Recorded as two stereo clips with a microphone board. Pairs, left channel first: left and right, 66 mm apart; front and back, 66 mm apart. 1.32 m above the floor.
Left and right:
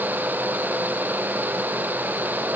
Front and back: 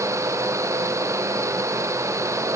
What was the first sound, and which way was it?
Only background noise.